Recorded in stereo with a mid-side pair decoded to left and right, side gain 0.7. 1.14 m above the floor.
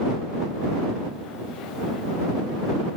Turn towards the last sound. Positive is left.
No sound to turn to.